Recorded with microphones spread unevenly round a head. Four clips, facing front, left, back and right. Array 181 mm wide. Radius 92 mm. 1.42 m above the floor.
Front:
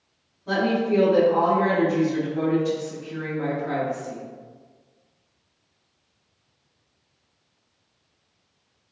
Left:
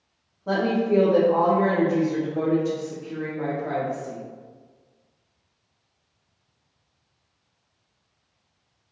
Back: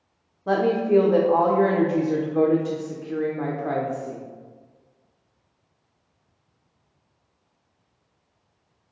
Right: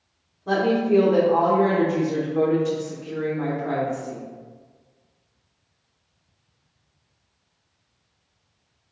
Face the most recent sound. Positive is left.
turn(degrees=180)